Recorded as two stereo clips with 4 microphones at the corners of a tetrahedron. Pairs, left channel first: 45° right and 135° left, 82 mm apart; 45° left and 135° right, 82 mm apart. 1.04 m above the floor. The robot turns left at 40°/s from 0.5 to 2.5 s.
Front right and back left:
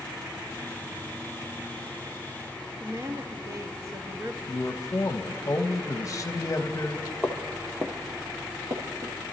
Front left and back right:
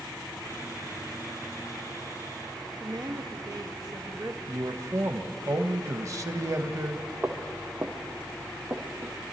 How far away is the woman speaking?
About 1.3 m.